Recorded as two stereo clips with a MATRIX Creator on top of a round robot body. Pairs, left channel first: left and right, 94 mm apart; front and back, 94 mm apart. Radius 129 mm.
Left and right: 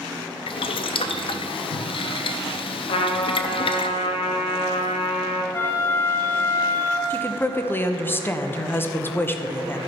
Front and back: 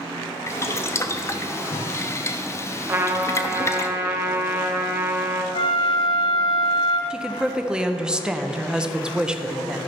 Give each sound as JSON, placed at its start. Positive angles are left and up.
{"t": 0.5, "sound": "boiling", "azimuth_deg": 65, "distance_m": 0.5}
{"t": 2.9, "sound": "a trumpet", "azimuth_deg": 115, "distance_m": 1.0}
{"t": 5.5, "sound": "a flute", "azimuth_deg": 25, "distance_m": 1.9}
{"t": 7.1, "sound": "a woman speaking", "azimuth_deg": 110, "distance_m": 1.0}